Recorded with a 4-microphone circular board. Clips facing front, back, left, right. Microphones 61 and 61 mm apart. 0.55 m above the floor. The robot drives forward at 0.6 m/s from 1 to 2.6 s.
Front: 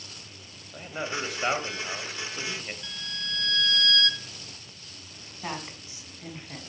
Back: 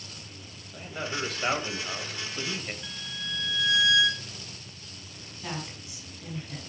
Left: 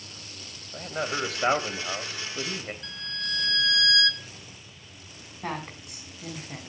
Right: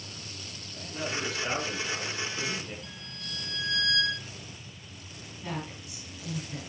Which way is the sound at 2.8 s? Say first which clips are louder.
Front 1 dB, left 8 dB; 100° left.